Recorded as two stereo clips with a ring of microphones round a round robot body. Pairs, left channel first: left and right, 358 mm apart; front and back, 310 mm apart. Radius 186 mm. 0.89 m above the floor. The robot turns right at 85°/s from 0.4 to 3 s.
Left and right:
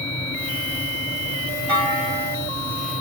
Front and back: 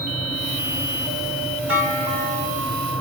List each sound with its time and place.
1.7 s a clunk: 115° right, 1.6 m; by 2.5 s 45° right, 1.6 m